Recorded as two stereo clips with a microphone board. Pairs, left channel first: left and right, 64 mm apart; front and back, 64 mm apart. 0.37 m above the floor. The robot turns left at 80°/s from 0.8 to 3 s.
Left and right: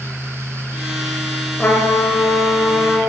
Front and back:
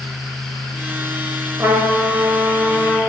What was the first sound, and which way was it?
A trumpet, 155° left.